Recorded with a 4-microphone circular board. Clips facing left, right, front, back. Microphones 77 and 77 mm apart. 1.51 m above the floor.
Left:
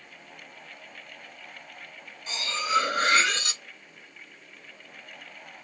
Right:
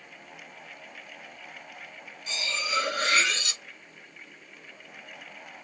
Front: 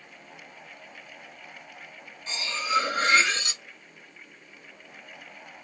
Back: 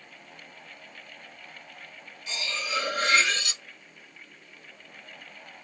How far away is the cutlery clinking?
About 1.1 m.